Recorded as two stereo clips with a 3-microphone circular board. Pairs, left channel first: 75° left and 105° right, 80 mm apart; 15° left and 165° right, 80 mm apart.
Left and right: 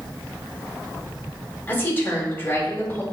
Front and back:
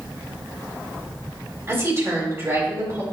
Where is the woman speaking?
140° left, 3 m.